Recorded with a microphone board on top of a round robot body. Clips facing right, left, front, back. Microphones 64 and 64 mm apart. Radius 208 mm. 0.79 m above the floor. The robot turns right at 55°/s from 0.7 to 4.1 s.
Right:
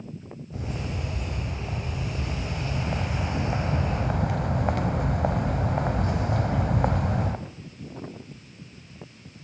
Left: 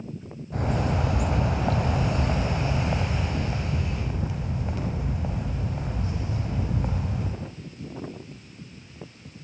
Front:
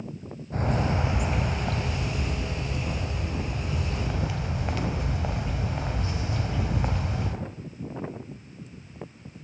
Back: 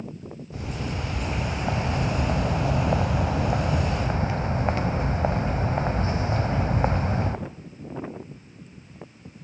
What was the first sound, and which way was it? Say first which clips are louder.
A bird: left 8 dB, front 6 dB; 50° left.